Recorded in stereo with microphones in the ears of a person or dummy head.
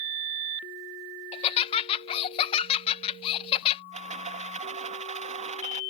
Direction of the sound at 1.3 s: 35° left (ahead or behind).